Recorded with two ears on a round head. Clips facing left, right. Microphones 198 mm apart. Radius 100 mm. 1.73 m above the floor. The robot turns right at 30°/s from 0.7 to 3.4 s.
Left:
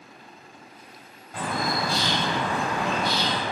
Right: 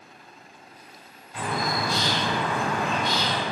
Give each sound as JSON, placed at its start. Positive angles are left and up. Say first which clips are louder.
{"t": 1.3, "sound": "a bird", "louder": "even", "azimuth_deg": 125, "distance_m": 1.0}